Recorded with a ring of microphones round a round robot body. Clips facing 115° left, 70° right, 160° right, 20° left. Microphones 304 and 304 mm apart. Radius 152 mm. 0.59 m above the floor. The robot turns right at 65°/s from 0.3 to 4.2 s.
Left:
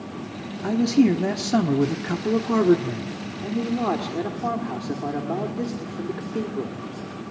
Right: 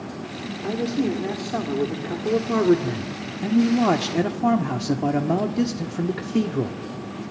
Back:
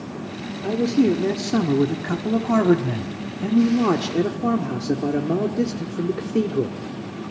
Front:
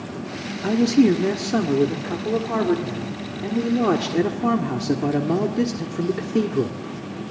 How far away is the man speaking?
About 1.4 m.